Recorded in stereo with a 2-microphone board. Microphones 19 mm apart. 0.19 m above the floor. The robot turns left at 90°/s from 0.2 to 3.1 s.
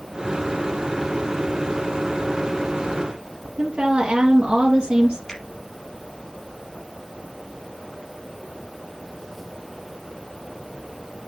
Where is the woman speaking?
60° right (ahead or behind), 2.5 m.